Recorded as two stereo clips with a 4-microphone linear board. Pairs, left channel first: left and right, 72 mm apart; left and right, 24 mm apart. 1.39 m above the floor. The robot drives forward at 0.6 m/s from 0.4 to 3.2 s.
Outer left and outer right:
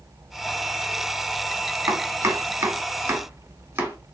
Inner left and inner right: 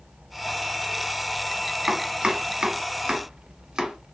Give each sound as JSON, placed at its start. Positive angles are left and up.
{"t": 1.9, "sound": "chopping", "side_deg": -40, "distance_m": 1.1}